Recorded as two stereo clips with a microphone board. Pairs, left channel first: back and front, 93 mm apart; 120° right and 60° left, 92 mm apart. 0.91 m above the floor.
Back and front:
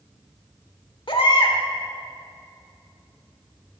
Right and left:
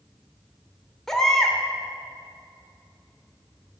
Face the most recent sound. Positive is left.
turn(degrees=155)